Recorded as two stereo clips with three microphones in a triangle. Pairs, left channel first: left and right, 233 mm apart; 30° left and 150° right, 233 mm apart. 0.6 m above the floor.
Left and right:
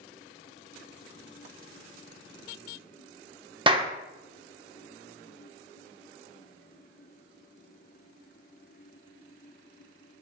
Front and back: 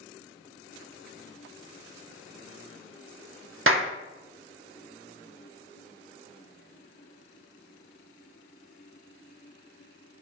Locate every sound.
3.7 s a clap: 160° right, 0.8 m